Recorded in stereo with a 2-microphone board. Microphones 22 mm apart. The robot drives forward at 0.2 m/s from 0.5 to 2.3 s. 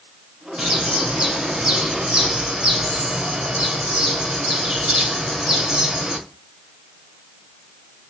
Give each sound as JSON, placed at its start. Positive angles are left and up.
{"t": 0.6, "sound": "a bird", "side_deg": -55, "distance_m": 1.9}